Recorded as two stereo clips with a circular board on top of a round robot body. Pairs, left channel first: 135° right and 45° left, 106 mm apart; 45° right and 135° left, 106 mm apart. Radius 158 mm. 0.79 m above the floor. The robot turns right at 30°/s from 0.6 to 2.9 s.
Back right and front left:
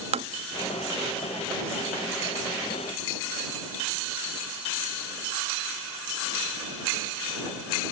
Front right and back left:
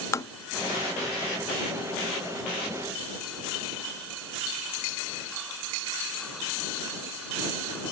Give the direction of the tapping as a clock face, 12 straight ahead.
11 o'clock.